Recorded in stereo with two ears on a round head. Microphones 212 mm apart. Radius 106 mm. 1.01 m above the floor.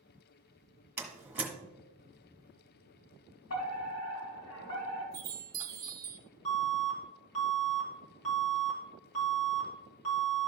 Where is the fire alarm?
65° left (ahead or behind), 3.5 m.